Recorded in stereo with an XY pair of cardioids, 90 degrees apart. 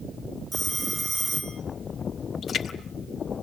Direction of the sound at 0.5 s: 25° right.